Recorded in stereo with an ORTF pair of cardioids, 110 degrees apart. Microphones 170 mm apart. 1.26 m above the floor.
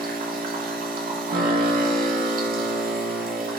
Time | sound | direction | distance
0.0 | a machine running | 55° right | 2 m